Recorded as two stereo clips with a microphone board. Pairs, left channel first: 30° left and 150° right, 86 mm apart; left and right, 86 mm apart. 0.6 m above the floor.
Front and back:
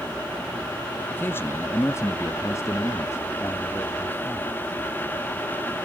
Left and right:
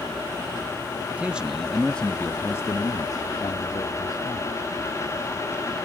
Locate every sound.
1.1 s a man speaking: 25° right, 0.9 m; by 4.6 s 95° left, 1.5 m